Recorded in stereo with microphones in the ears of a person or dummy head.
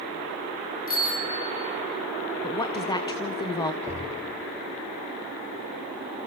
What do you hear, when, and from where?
0.9 s a bicycle bell: 45° left (ahead or behind), 2 m; by 1.9 s 30° left (ahead or behind), 1.8 m
2.4 s a woman speaking: 25° left (ahead or behind), 0.8 m
3.8 s knocking: 10° left (ahead or behind), 3.5 m